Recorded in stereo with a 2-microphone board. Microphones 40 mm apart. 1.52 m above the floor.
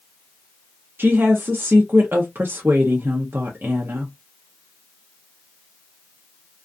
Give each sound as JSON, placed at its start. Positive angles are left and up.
{"t": 1.0, "sound": "a woman speaking", "side_deg": -65, "distance_m": 0.5}